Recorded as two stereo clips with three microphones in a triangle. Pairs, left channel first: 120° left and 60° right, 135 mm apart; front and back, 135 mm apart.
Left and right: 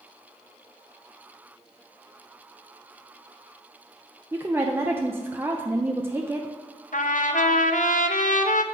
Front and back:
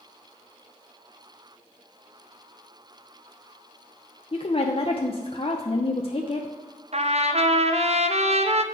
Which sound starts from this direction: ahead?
A woman speaking, at 4.3 s.